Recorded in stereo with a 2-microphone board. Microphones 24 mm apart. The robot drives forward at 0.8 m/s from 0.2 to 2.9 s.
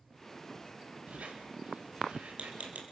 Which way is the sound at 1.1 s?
70° right (ahead or behind).